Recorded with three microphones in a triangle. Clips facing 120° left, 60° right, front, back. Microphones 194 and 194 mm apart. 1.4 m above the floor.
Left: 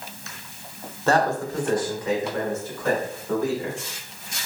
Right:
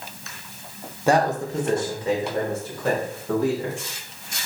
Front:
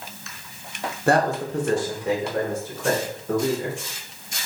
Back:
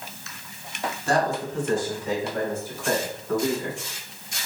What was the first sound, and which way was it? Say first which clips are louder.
A man speaking: right 1 dB, front 4 dB; 20° left.